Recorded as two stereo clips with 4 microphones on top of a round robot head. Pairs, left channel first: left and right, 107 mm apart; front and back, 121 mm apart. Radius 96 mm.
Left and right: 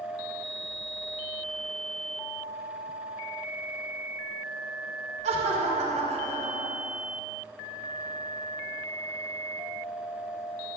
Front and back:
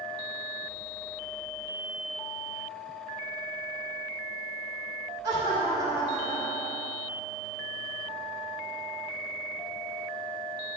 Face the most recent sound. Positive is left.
turn(degrees=-105)